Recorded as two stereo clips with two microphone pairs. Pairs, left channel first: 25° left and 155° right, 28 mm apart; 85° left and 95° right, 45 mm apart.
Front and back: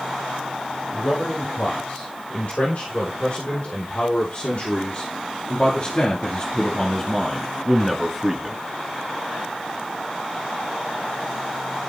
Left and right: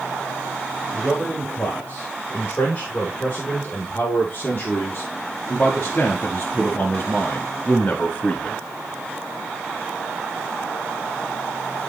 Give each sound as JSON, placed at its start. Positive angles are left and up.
{"t": 0.9, "sound": "a man speaking", "azimuth_deg": 30, "distance_m": 4.0}